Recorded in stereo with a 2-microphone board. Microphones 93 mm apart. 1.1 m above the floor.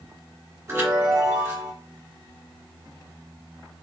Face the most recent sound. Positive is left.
turn(degrees=-30)  # may be behind; listen again after turning